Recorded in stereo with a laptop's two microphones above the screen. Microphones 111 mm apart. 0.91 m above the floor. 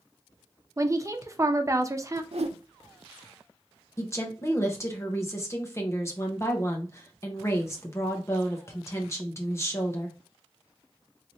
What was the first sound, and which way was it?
A woman speaking, 30° right (ahead or behind).